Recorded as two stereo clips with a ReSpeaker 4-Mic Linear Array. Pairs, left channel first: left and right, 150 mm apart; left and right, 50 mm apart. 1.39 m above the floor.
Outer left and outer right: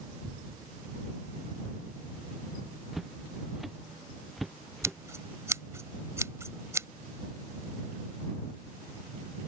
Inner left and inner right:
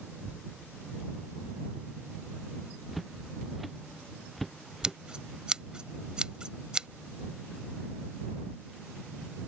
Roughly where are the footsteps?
Centre.